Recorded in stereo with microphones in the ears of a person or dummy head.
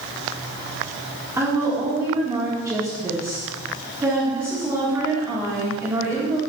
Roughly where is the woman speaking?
Centre.